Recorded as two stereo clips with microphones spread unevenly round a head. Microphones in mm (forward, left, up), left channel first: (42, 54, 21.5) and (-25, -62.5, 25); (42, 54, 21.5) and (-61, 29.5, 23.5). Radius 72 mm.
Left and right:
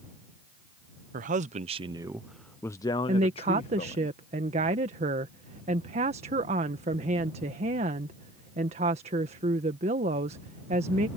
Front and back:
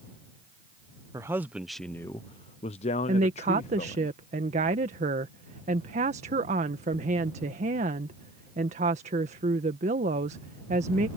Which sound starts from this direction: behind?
A woman speaking, at 3.1 s.